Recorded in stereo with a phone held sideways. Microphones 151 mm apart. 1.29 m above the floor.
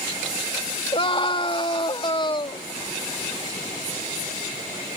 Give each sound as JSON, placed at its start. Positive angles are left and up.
{"t": 0.9, "sound": "a scream", "side_deg": 40}